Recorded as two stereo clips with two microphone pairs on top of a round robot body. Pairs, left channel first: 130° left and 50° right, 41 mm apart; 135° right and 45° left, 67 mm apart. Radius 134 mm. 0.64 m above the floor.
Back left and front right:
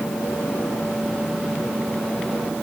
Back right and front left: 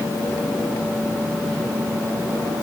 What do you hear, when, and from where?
Only background noise.